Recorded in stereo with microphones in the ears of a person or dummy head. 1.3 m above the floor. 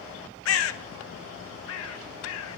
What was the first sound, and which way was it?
A bird, 85° left.